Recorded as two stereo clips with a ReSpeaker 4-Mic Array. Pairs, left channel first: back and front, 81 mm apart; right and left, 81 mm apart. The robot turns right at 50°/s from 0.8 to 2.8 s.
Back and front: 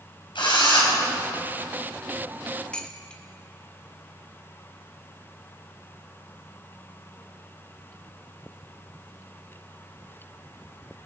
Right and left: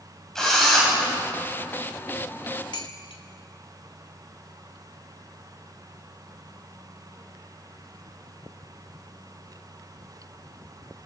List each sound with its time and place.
0.3 s a drill: 175° right, 7 m; by 0.9 s 170° right, 7 m
2.7 s dishes clattering: 105° right, 1.9 m; by 3.2 s 100° right, 1.9 m